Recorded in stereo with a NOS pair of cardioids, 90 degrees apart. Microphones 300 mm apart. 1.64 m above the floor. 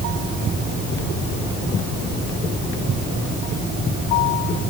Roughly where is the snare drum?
No snare drum in this recording.